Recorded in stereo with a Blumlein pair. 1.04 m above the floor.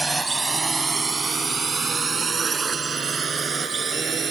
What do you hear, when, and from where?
0.0 s a drone: 10° right; by 4.3 s 20° right